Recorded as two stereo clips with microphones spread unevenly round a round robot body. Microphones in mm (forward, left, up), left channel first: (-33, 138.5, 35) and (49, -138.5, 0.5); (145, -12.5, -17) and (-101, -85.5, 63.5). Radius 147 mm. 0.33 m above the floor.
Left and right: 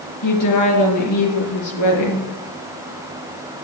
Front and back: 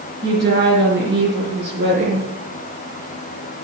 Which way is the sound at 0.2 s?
135° left.